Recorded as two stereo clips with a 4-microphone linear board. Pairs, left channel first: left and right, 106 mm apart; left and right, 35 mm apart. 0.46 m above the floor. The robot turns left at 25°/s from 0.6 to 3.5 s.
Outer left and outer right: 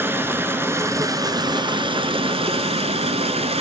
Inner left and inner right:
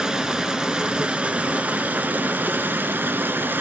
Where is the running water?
20° right, 0.9 m; by 3.6 s 95° right, 0.9 m.